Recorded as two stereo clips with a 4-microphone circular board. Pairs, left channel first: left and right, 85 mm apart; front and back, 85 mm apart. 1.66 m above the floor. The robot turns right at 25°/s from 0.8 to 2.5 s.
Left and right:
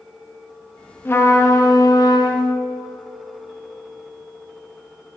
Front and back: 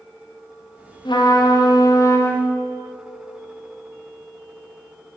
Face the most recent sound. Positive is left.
turn(degrees=65)